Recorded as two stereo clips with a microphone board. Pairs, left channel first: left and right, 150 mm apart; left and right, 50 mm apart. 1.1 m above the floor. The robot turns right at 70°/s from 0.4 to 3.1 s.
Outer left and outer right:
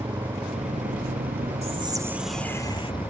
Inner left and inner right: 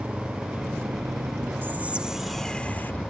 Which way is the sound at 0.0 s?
150° right.